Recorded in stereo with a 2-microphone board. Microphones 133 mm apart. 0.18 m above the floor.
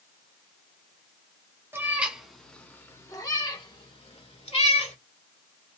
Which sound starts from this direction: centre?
A cat meowing, at 1.7 s.